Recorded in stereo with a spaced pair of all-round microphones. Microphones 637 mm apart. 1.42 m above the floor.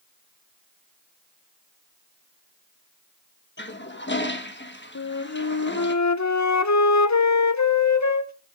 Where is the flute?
30° left (ahead or behind), 0.6 m.